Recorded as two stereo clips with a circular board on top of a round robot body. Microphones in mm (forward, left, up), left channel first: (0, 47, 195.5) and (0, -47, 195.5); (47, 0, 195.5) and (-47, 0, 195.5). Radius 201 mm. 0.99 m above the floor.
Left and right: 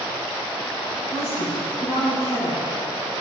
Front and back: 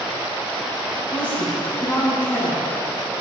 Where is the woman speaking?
75° left, 8 m.